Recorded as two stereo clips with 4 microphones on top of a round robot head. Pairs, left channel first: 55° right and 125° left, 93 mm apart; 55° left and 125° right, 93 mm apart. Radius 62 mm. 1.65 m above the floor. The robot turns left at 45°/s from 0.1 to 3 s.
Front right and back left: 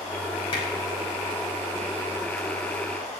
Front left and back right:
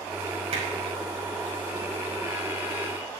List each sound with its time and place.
0.5 s hammering: 95° right, 5 m; by 0.7 s 105° right, 5 m